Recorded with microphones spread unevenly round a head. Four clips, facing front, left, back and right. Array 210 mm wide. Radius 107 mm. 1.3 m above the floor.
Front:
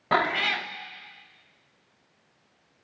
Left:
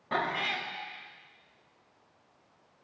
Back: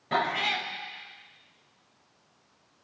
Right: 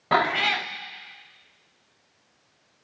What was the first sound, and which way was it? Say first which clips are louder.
A cat meowing: right 9 dB, front 3 dB; 70° right.